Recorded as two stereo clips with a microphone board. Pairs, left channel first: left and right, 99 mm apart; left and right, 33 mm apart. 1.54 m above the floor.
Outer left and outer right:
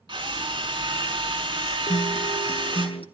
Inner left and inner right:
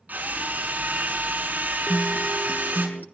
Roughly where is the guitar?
Left.